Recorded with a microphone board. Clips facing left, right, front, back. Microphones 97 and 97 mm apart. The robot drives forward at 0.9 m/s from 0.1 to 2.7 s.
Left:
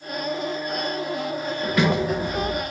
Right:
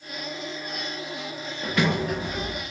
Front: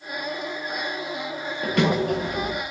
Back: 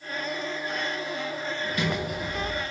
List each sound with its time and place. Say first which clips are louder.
1.6 s a sliding door: left 3 dB, front 10 dB; 5° left, 5.5 m